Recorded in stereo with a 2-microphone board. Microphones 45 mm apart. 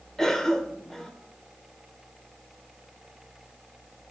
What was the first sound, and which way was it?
A cough, 5° left (ahead or behind).